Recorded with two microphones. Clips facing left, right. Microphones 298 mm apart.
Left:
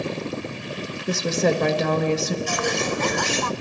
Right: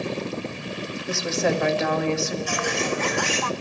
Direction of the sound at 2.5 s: 45° left (ahead or behind).